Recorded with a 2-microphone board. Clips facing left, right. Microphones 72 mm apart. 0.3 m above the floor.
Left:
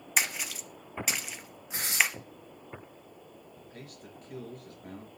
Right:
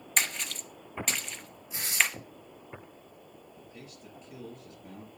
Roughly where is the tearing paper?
Left.